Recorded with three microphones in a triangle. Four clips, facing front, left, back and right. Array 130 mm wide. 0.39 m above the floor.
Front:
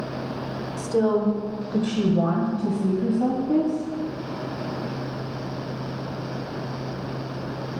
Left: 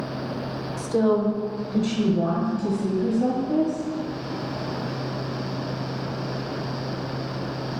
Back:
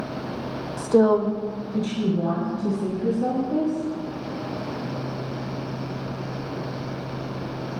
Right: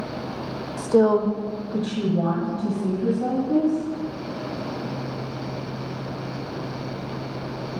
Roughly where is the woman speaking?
Behind right.